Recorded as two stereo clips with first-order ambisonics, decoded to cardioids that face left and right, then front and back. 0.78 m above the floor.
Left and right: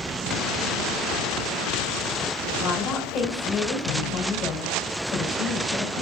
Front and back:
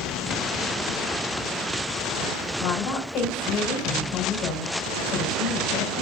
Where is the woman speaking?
35° left, 4 m.